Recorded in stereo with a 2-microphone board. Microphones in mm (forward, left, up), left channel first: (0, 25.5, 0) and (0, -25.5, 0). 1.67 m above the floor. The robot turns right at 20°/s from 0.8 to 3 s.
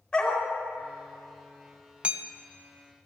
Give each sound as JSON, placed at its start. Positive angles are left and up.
{"t": 0.1, "sound": "a dog barking", "side_deg": 20, "distance_m": 2.5}
{"t": 2.0, "sound": "hammering", "side_deg": -25, "distance_m": 0.6}